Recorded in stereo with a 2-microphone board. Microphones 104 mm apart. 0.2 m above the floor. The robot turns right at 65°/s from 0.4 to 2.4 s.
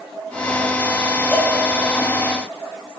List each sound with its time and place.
1.3 s a cowbell: 20° left (ahead or behind), 4 m; by 1.6 s 35° left (ahead or behind), 4 m